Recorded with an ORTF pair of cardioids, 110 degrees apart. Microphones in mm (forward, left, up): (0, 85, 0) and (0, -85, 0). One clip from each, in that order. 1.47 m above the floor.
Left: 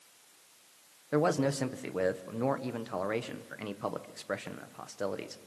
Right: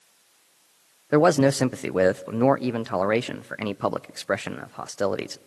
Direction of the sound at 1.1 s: 50° right.